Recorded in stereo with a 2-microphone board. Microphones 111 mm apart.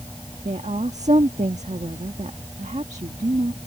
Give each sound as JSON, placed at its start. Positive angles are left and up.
{"t": 0.5, "sound": "a woman speaking", "side_deg": -80}